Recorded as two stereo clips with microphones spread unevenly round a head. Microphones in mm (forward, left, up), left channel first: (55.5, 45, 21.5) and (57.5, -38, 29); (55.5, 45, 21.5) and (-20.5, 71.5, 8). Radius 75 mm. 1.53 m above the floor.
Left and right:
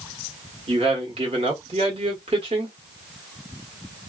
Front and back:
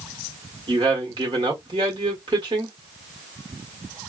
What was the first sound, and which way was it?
A man speaking, 140° right.